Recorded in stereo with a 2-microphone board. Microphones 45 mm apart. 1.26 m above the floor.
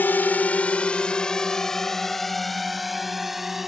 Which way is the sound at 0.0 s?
45° left (ahead or behind).